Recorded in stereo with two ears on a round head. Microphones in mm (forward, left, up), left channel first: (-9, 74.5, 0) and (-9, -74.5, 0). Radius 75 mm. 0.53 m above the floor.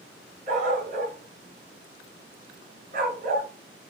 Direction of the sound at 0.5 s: 45° right (ahead or behind).